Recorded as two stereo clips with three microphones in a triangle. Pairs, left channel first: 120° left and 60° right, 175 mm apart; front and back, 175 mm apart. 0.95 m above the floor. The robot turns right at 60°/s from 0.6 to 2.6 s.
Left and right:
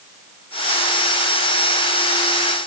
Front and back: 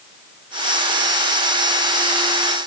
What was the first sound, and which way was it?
Only background noise.